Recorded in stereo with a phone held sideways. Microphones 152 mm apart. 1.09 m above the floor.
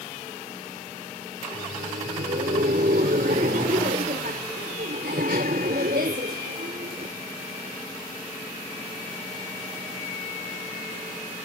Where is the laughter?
90° right.